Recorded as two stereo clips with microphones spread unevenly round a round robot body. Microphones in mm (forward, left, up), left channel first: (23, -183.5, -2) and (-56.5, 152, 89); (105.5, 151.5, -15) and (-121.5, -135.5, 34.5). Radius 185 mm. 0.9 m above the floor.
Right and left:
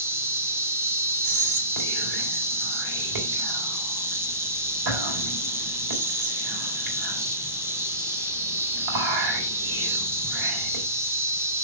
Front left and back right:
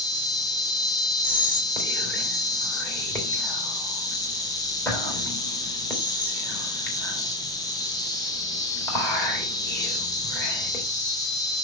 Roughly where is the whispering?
Behind left.